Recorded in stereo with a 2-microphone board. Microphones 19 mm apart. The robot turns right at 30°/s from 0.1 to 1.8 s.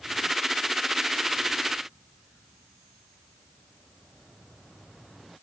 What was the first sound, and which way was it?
Only background noise.